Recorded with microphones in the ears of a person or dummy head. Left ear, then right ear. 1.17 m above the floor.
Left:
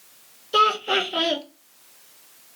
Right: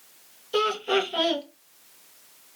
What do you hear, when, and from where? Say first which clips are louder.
0.5 s laughter: left 5 dB; 5° left (ahead or behind), 0.7 m